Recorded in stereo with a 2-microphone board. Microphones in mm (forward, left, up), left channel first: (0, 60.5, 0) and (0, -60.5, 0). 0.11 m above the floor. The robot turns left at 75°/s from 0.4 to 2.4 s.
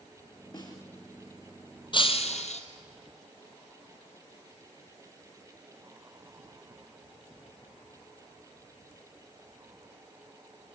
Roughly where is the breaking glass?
Behind left.